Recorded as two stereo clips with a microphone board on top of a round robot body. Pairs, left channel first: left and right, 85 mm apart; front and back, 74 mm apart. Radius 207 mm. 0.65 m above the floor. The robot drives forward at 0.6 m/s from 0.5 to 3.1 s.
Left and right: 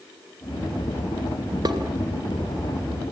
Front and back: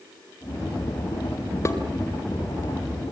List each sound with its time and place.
1.6 s dishes clattering: 50° right, 2 m